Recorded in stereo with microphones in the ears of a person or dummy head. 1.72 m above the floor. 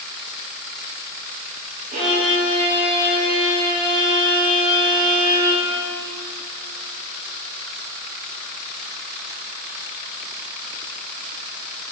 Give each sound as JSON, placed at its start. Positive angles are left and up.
{"t": 1.9, "sound": "a violin", "side_deg": -45, "distance_m": 1.9}